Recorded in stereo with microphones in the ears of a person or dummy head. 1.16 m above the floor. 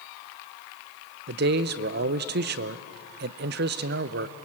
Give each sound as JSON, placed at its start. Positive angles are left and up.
{"t": 1.3, "sound": "a man speaking", "side_deg": -55, "distance_m": 0.6}